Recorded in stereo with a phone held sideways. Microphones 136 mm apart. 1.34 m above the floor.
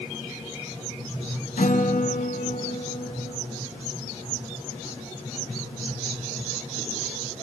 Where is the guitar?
70° left (ahead or behind), 1.2 m.